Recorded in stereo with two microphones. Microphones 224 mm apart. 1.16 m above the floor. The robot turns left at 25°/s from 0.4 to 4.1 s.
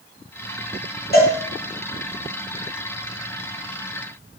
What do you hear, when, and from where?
1.1 s a cowbell: 45° left (ahead or behind), 0.9 m; by 1.4 s 50° left (ahead or behind), 0.9 m